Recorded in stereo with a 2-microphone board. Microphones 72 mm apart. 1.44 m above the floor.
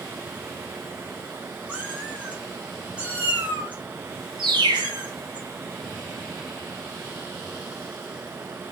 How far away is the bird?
About 0.9 m.